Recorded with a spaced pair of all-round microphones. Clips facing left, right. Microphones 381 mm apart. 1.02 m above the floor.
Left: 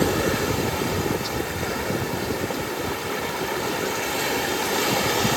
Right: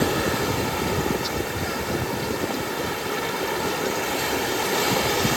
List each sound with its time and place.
Only background noise.